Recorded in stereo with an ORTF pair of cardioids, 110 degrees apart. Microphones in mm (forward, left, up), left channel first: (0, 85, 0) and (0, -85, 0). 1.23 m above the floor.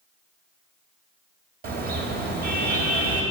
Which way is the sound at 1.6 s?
65° right.